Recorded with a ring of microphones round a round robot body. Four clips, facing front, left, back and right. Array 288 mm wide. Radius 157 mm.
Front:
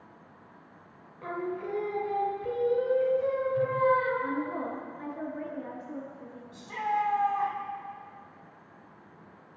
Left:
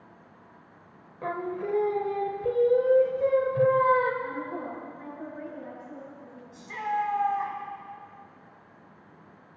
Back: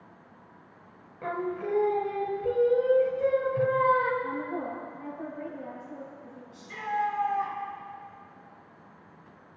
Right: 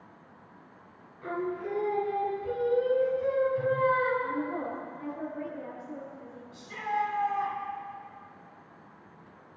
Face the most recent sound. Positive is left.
turn(degrees=40)